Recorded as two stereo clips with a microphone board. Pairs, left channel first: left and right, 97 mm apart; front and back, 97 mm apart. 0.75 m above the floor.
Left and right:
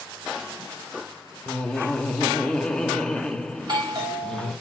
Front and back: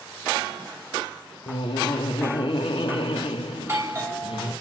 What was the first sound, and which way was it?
Laughter, 5° left.